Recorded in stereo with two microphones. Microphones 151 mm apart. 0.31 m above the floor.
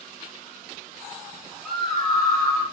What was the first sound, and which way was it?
A scream, centre (ahead or behind).